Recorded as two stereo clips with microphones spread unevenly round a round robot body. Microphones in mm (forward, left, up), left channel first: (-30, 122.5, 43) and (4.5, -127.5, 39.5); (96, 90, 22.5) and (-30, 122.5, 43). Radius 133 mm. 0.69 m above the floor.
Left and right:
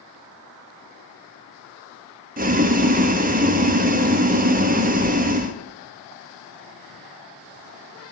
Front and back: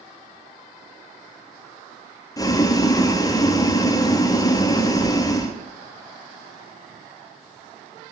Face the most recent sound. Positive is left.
turn(degrees=-45)